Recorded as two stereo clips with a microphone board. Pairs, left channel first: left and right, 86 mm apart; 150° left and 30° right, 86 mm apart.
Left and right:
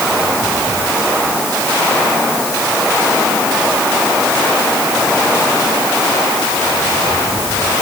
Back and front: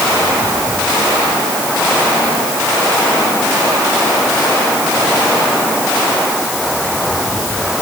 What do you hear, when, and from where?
Only background noise.